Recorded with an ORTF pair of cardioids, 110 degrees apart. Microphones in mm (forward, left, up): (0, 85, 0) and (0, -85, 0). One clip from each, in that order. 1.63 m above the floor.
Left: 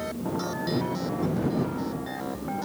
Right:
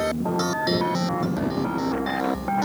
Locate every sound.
0.0 s a machine running: 50° right